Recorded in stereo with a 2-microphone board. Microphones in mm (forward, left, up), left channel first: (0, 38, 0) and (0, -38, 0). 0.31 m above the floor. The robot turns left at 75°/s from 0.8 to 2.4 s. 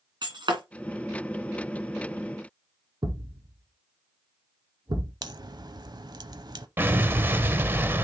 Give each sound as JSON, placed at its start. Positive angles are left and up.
{"t": 0.2, "sound": "breaking glass", "side_deg": -75, "distance_m": 2.5}
{"t": 3.0, "sound": "a thud", "side_deg": -70, "distance_m": 1.8}
{"t": 5.2, "sound": "a crack", "side_deg": -65, "distance_m": 0.6}
{"t": 6.8, "sound": "an explosion", "side_deg": -30, "distance_m": 0.7}